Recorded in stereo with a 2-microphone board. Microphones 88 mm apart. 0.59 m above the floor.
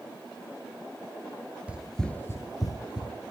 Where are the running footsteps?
15° right (ahead or behind), 0.6 m; by 3.1 s 60° left (ahead or behind), 1.0 m.